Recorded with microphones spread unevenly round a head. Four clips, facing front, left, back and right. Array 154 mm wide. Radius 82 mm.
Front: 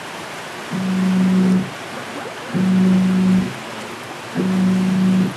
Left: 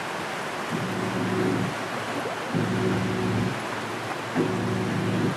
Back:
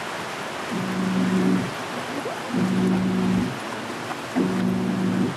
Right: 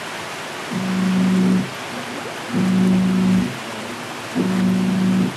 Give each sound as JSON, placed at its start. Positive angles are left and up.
{"t": 0.7, "sound": "a phone buzzing", "azimuth_deg": -25, "distance_m": 4.5}